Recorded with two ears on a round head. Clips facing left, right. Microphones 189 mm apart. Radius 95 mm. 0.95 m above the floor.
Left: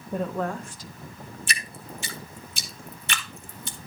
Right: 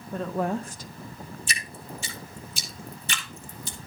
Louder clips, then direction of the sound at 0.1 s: Right 1 dB; 10° left (ahead or behind).